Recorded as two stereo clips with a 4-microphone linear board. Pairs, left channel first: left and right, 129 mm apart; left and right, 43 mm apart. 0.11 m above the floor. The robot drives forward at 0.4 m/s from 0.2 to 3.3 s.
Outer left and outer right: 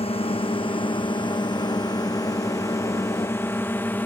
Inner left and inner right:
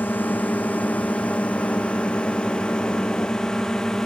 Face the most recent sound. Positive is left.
turn(degrees=15)  # may be behind; listen again after turning